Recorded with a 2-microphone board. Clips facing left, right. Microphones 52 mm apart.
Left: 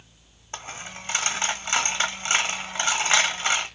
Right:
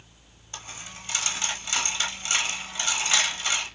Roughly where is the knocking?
I don't hear knocking.